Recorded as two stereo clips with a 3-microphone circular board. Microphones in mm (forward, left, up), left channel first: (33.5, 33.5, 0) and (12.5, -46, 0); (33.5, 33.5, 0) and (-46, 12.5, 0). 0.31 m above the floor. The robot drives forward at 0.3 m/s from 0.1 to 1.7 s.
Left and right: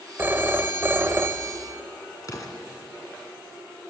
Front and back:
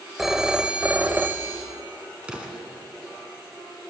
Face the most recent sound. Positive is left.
turn(degrees=120)